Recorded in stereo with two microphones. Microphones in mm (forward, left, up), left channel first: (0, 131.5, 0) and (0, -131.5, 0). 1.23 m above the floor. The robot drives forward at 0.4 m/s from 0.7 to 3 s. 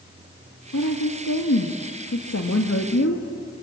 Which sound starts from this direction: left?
A woman speaking, at 0.7 s.